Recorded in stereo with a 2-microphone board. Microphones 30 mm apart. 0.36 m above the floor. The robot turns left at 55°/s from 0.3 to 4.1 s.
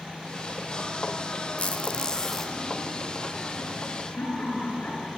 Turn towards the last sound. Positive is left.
turn(degrees=75)  # may be behind; listen again after turning